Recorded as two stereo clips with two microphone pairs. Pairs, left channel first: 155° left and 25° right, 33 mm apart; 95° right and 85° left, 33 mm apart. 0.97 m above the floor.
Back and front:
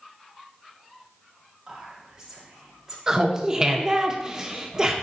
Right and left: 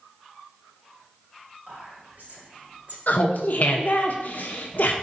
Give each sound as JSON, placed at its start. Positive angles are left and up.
{"t": 1.7, "sound": "whispering", "azimuth_deg": 50, "distance_m": 4.0}
{"t": 3.1, "sound": "laughter", "azimuth_deg": -90, "distance_m": 1.0}